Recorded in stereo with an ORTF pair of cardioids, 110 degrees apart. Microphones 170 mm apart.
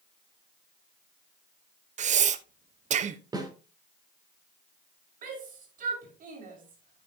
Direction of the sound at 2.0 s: 45° right.